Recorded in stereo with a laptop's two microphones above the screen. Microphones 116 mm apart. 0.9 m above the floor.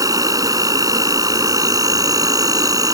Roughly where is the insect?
Right.